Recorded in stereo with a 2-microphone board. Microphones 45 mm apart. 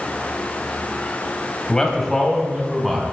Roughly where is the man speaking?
Centre.